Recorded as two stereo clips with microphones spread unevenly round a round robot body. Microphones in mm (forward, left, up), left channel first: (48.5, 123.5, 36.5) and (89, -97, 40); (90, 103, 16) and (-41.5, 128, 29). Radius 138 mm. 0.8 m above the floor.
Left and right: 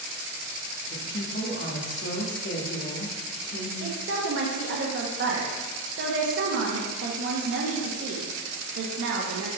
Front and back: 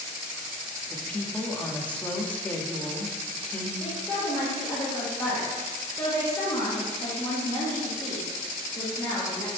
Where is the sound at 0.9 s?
70° left, 1.6 m.